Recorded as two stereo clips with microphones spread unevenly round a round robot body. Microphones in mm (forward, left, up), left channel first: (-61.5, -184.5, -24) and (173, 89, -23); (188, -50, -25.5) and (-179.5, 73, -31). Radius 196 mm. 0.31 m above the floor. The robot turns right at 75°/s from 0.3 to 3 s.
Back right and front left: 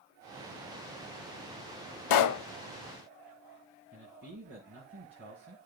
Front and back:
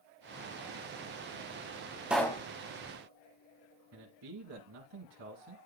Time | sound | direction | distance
2.1 | a pop | 115° right | 0.6 m
3.9 | a man speaking | 115° left | 1.9 m